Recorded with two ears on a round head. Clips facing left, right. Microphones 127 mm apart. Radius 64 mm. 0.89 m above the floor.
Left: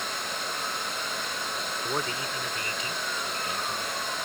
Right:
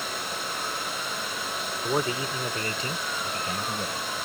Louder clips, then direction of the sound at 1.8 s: Right 6 dB; 10° right (ahead or behind).